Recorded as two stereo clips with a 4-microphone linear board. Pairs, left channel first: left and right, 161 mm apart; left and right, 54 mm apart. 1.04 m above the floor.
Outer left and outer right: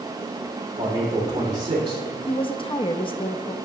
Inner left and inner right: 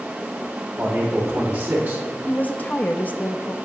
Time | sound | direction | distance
0.8 | a man speaking | 30° right (ahead or behind) | 3 m
2.3 | a woman speaking | 35° left (ahead or behind) | 0.5 m